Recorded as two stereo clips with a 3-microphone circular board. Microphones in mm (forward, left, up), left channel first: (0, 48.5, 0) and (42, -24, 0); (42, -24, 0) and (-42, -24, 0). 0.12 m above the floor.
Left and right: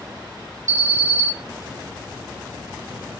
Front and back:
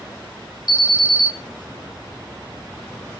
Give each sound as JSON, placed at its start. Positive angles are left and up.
{"t": 0.7, "sound": "an alarm", "azimuth_deg": -10, "distance_m": 2.5}